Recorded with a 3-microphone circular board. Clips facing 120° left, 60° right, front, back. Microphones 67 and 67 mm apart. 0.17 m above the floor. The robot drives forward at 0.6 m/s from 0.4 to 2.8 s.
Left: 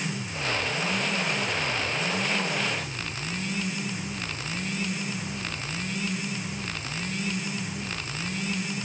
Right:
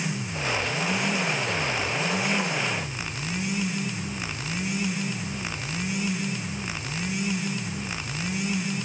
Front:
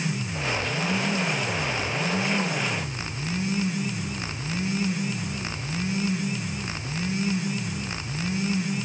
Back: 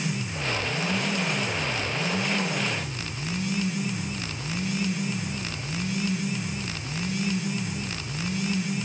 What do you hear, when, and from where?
Only background noise.